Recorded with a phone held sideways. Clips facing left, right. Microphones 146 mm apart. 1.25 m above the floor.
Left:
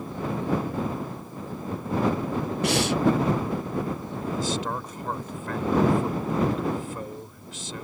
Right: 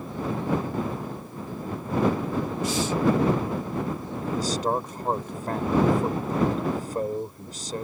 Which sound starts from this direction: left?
Breathing, at 2.6 s.